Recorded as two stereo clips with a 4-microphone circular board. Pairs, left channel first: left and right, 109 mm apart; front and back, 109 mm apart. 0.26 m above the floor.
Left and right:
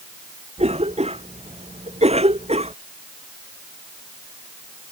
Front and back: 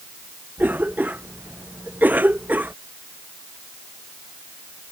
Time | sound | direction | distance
0.6 | a cough | 105° right | ?